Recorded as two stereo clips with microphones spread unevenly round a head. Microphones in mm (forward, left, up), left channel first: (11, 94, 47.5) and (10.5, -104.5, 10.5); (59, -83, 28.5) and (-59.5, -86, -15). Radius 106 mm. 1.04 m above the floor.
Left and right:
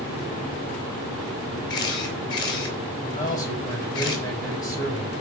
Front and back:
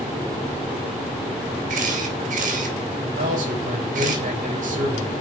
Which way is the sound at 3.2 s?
165° left.